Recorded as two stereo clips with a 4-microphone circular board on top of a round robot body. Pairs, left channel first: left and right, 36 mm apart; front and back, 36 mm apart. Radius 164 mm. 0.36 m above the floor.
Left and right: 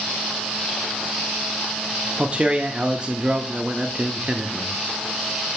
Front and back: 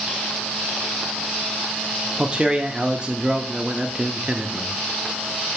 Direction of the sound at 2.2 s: 130° right.